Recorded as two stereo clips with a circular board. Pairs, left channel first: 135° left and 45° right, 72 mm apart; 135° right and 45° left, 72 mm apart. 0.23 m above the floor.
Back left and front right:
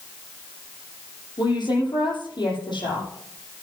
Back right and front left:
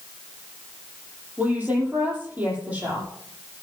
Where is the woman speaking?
115° left, 8 m.